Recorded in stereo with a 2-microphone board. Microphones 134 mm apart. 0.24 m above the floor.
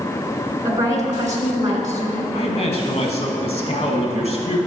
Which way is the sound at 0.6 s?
25° right (ahead or behind).